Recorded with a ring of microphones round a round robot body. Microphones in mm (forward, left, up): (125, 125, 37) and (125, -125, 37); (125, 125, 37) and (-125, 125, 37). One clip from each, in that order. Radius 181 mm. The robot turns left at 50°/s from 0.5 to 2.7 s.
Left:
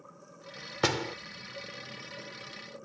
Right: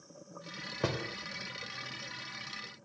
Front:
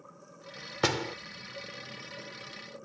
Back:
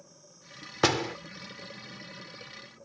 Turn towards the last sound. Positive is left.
turn(degrees=25)